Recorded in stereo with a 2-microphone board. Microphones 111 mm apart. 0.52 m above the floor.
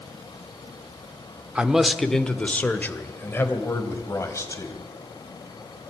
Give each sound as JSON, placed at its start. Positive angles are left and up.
{"t": 1.6, "sound": "a man speaking", "side_deg": -10, "distance_m": 1.0}